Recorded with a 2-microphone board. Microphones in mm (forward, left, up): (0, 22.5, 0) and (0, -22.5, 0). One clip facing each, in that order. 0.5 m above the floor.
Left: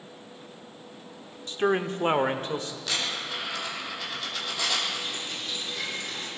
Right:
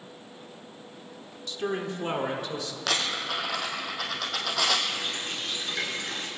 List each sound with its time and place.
1.5 s a man speaking: 40° left (ahead or behind), 0.9 m
2.9 s a dropped coin: 80° right, 2.5 m
4.9 s a running tap: 80° right, 4.5 m